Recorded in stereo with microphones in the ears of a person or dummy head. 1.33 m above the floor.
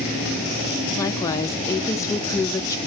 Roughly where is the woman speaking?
Centre.